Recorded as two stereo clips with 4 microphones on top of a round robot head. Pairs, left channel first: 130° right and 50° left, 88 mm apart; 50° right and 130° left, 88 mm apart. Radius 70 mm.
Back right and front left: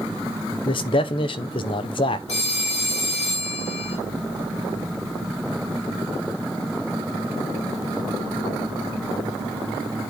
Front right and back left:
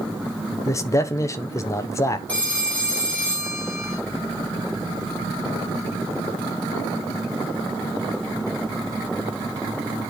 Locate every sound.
0.7 s a man speaking: 105° right, 1.1 m
2.3 s a phone ringing: 125° right, 4 m